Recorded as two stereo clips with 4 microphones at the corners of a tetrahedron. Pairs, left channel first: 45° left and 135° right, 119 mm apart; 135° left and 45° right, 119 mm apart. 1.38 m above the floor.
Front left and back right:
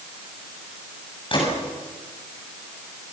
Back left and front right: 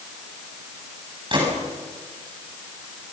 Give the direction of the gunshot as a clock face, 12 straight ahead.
12 o'clock.